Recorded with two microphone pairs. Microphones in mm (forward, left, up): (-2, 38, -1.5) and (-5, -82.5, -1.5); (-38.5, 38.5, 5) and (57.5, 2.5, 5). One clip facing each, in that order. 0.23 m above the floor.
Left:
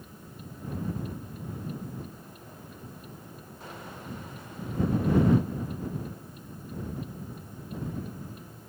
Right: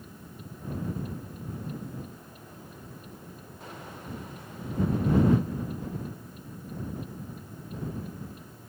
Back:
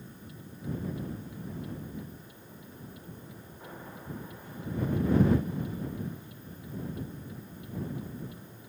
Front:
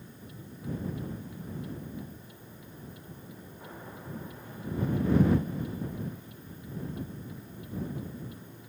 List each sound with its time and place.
Only background noise.